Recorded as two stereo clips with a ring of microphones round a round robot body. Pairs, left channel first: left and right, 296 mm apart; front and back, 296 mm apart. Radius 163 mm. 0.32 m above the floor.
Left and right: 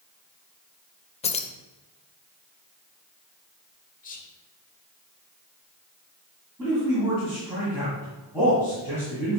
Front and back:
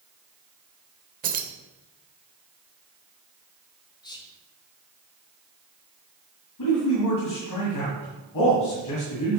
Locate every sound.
1.2 s keys jangling: 145° left, 0.7 m
4.0 s whispering: 60° left, 1.0 m
6.6 s a man speaking: 5° right, 2 m